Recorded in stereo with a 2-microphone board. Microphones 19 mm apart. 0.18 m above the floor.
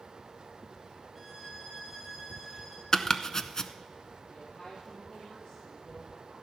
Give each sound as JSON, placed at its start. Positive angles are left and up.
{"t": 1.1, "sound": "a violin", "side_deg": 5, "distance_m": 2.5}
{"t": 2.9, "sound": "chopping", "side_deg": 30, "distance_m": 0.7}
{"t": 4.3, "sound": "a woman speaking", "side_deg": 55, "distance_m": 4.5}